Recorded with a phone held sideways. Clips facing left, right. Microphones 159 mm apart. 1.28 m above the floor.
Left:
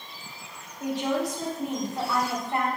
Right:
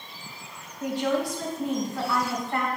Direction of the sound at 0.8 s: 20° left (ahead or behind).